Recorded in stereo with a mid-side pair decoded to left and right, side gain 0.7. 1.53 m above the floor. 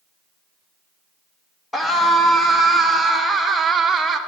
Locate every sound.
1.7 s a scream: 10° left, 2.5 m; by 4.2 s 25° right, 1.7 m